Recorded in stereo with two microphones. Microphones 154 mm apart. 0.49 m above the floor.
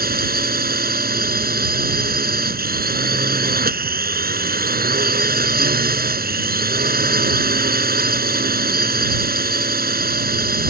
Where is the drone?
80° right.